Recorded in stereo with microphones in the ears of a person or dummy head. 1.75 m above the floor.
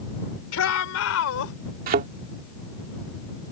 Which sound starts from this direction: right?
A thud, at 1.9 s.